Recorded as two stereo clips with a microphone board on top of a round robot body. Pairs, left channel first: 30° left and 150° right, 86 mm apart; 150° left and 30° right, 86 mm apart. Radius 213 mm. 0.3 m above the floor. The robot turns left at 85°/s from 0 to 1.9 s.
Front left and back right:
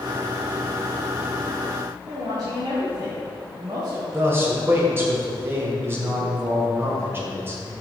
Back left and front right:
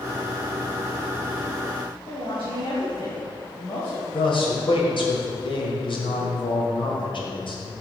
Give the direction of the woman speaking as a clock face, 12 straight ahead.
6 o'clock.